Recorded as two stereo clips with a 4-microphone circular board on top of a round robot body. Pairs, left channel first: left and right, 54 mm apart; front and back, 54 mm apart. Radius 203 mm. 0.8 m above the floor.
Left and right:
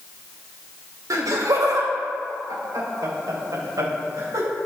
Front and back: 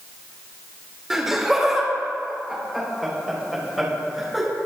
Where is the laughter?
95° right, 3 m; by 4.5 s 90° right, 5 m.